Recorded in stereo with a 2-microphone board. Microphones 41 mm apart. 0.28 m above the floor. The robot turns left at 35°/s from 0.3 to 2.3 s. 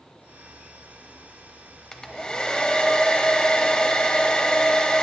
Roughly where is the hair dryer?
Centre.